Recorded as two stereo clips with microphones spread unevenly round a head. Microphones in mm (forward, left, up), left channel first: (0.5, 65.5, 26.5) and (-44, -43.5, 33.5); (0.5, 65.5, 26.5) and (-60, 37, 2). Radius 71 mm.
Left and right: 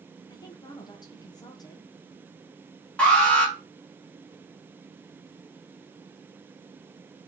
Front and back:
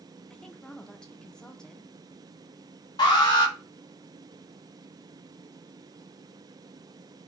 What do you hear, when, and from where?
0.3 s a woman speaking: 115° left, 0.7 m
3.0 s an alarm: 10° right, 1.6 m